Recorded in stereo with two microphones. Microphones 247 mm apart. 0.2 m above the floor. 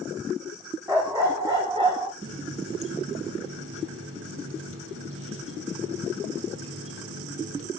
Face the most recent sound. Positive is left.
turn(degrees=-60)  # may be behind; listen again after turning